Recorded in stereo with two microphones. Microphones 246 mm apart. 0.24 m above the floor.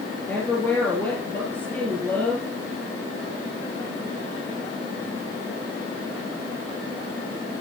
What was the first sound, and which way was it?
A woman speaking, 5° left (ahead or behind).